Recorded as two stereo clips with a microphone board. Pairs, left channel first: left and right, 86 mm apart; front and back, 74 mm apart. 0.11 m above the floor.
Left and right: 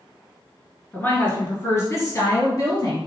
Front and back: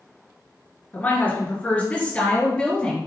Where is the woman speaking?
40° left, 1.6 m; by 3.1 s 75° left, 2 m.